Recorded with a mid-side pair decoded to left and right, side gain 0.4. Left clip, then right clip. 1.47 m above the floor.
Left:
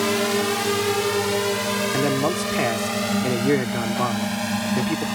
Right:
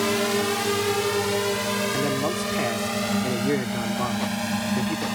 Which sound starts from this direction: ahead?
A drone, at 0.0 s.